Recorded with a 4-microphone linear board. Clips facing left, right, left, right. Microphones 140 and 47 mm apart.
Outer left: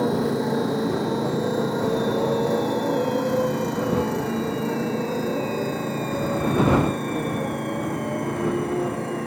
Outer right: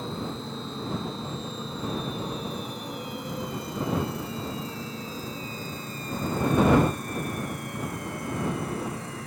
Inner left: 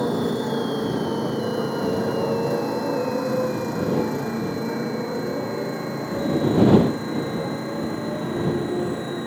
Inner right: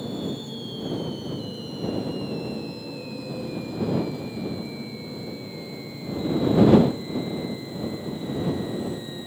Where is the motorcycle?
90° left; by 9.3 s 60° left (ahead or behind).